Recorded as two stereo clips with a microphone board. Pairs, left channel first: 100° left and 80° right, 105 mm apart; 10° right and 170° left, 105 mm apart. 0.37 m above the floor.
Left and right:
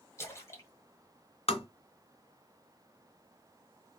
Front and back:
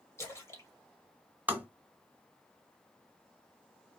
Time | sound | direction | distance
0.2 | a splash | 45° left | 1.8 m
1.5 | tapping | 95° left | 2.0 m